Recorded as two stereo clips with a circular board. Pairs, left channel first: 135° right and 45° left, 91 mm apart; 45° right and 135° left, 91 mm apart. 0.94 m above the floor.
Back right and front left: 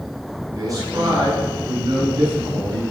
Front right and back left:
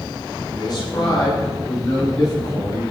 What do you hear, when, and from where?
0.5 s a man speaking: 5° right, 9.5 m; by 2.8 s 5° left, 12.5 m